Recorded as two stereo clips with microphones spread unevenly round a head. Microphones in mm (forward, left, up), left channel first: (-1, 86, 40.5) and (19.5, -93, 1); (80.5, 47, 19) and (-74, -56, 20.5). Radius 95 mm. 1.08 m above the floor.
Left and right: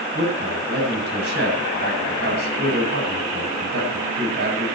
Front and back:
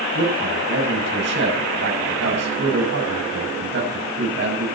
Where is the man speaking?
115° right, 8 m.